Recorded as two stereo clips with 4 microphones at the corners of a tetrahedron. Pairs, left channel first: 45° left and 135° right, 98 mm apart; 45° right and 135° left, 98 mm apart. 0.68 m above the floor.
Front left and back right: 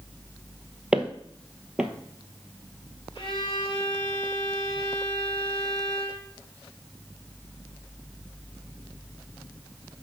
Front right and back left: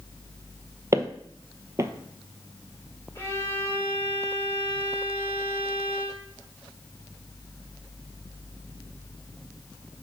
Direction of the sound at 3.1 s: 15° left.